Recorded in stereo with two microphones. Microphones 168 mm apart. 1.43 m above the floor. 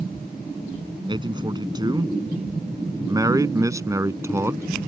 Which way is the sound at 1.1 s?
25° right (ahead or behind).